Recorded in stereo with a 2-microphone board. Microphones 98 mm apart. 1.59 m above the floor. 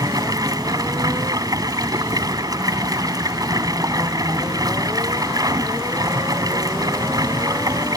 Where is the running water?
40° right (ahead or behind).